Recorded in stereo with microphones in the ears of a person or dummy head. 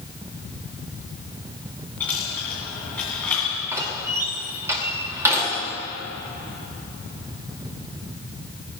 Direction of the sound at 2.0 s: 10° left (ahead or behind).